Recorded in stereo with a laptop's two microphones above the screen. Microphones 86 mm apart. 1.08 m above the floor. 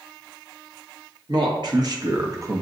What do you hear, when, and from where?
1.3 s a man speaking: 60° right (ahead or behind), 1.3 m; by 2.6 s 30° right (ahead or behind), 0.7 m